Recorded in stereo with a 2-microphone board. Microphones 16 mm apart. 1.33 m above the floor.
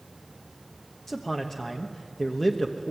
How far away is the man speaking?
About 1.2 m.